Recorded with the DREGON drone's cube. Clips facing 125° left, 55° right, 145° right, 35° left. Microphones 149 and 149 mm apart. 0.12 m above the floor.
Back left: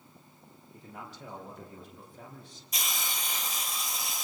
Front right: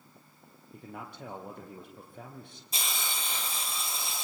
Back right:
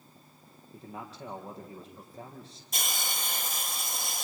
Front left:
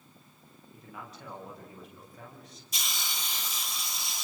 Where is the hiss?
115° right, 2.5 m.